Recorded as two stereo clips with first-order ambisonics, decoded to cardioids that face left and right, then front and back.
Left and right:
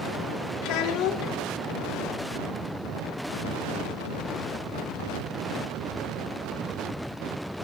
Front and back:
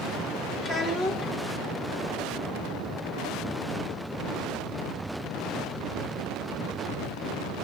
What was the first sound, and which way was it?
A child speaking, 70° left.